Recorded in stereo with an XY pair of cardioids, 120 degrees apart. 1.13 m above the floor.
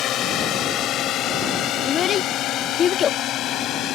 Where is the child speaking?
45° left.